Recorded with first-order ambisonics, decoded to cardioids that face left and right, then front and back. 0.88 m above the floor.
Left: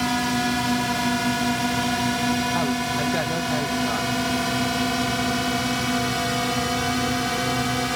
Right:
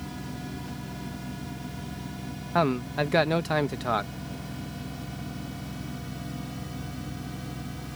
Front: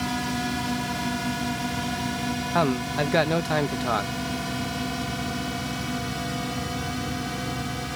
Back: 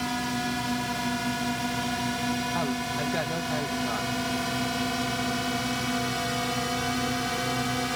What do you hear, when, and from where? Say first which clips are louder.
0.0 s a drone: left 17 dB, front 1 dB; 90° left; by 8.0 s 110° left
2.5 s a man speaking: left 2 dB, front 5 dB; 35° right